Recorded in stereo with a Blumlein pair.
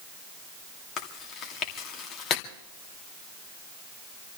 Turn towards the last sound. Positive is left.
turn(degrees=30)